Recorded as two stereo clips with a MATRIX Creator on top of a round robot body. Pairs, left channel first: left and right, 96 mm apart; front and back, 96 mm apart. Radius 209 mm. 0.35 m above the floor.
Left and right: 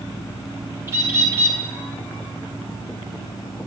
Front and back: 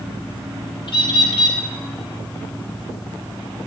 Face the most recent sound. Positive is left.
turn(degrees=-30)